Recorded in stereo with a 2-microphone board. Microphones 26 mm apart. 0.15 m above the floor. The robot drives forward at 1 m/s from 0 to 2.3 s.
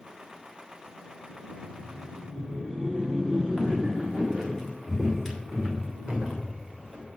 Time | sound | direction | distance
1.5 | laughter | 35° right (ahead or behind) | 1.2 m
3.6 | footsteps | 10° left (ahead or behind) | 5.5 m